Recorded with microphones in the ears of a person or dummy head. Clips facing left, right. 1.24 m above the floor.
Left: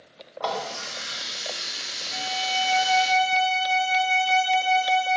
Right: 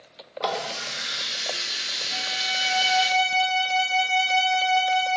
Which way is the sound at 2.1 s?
60° right (ahead or behind).